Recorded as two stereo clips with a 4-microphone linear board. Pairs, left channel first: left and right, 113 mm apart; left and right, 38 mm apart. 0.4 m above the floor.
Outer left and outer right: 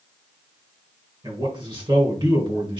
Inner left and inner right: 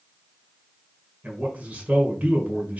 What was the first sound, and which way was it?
A man speaking, 40° right (ahead or behind).